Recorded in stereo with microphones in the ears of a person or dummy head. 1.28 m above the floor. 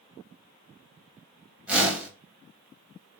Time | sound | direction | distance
1.7 | a whoosh | 10° right (ahead or behind) | 1.3 m